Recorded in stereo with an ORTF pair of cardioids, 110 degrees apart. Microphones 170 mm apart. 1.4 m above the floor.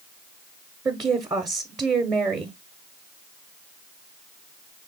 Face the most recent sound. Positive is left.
turn(degrees=-20)